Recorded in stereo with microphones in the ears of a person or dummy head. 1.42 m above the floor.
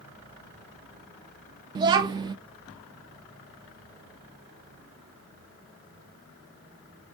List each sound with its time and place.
1.8 s a child speaking: 25° right (ahead or behind), 0.5 m